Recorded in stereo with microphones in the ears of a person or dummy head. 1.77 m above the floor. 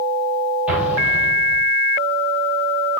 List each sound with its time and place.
0.7 s an explosion: 5° right (ahead or behind), 4.5 m